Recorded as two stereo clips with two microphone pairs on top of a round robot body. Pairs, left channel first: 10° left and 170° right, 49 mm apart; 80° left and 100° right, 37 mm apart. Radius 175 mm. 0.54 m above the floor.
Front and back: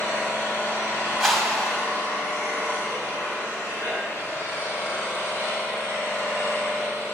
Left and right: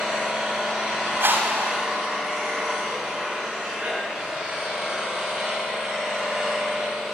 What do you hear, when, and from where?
0.0 s an engine running: 20° right, 7 m
1.2 s a whoosh: 75° right, 2 m